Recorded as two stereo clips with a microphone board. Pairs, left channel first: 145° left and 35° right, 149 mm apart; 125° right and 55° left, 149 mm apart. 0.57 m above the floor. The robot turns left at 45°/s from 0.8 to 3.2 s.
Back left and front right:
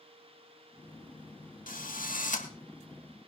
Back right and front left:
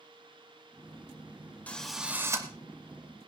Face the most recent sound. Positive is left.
turn(degrees=85)